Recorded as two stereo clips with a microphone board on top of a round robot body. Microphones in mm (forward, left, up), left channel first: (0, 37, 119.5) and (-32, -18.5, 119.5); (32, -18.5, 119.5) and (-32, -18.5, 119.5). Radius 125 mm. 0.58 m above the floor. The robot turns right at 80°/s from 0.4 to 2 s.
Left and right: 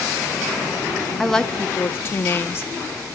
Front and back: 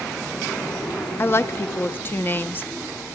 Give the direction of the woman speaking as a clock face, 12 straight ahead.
1 o'clock.